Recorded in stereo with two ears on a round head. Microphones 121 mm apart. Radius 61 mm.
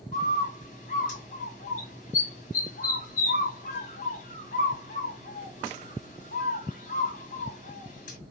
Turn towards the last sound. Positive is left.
turn(degrees=55)  # may be behind; listen again after turning